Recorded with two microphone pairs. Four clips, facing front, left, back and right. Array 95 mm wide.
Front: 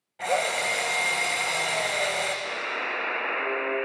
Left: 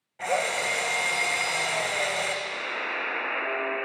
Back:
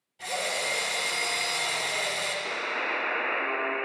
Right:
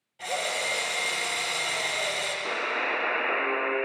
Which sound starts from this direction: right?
A buzzer, at 2.5 s.